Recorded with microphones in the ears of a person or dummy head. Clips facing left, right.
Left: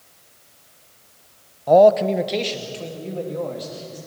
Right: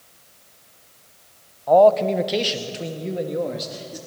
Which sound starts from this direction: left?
A man speaking, at 1.7 s.